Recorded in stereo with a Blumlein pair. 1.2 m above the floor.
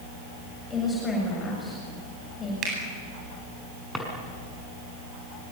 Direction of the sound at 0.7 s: 15° left.